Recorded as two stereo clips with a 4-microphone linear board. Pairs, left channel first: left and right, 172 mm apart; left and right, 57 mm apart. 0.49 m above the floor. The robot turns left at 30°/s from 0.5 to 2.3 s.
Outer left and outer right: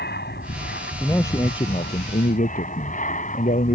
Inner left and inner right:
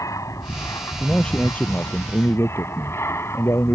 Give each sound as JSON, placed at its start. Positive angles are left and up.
{"t": 0.0, "sound": "an aircraft", "side_deg": 65}
{"t": 1.0, "sound": "a man speaking", "azimuth_deg": 170}